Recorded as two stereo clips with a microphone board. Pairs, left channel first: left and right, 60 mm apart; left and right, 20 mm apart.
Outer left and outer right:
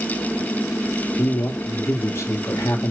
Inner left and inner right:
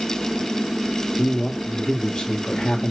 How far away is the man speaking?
About 2.5 m.